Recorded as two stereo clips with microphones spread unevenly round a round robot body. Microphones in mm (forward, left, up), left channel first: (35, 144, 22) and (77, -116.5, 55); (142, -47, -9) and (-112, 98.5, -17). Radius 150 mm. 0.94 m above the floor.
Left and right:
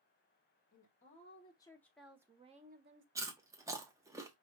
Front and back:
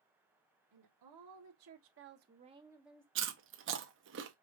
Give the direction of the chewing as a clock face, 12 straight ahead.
5 o'clock.